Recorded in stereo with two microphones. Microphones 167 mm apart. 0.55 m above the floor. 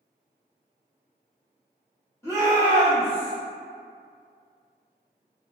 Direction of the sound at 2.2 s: 15° left (ahead or behind).